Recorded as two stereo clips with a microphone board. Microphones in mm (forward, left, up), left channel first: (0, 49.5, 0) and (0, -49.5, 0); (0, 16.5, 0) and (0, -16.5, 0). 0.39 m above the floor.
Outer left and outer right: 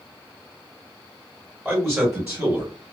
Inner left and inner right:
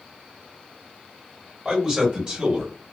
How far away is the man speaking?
About 1.7 m.